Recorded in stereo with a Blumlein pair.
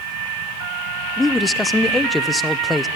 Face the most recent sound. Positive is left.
turn(degrees=10)